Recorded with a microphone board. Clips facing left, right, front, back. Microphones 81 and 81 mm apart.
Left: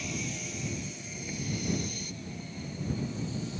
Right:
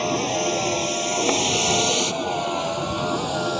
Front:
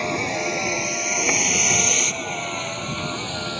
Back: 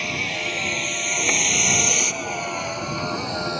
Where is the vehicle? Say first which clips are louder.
Right 16 dB, front 4 dB; 65° right; by 3.6 s 105° right.